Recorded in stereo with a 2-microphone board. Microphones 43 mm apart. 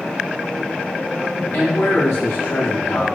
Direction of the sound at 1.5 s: 80° left.